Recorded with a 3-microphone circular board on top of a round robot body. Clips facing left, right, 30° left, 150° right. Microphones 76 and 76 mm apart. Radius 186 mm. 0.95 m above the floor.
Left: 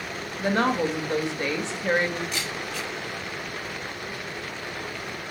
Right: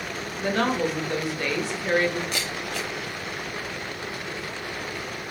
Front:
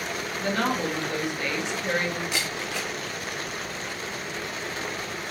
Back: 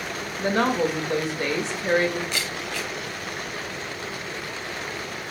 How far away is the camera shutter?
About 0.8 m.